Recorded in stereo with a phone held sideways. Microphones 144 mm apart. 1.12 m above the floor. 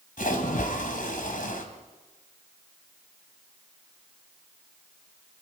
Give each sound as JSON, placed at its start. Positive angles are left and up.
{"t": 0.2, "sound": "a splash", "side_deg": 70, "distance_m": 2.5}